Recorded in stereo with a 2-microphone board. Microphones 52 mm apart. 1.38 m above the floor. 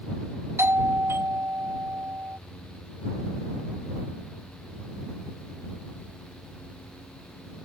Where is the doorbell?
55° right (ahead or behind).